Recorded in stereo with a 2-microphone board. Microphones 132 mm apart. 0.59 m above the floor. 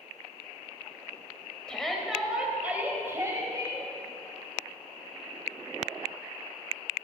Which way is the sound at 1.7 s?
5° left (ahead or behind).